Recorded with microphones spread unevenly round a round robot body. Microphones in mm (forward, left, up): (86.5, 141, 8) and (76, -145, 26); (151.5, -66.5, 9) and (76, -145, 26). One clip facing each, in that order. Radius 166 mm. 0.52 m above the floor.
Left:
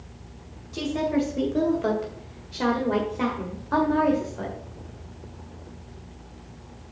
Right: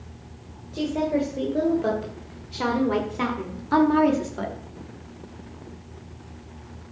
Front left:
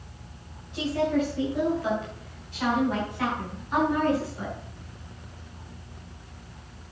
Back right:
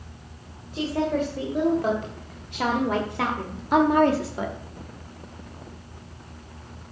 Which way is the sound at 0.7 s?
155° left.